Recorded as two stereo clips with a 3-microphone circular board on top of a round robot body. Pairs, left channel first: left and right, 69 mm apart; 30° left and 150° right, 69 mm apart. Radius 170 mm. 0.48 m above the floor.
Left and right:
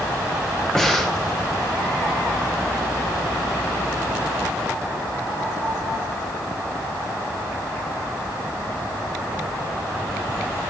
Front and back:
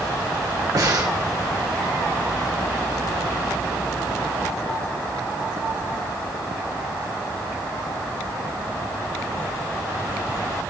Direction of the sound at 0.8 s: 175° left.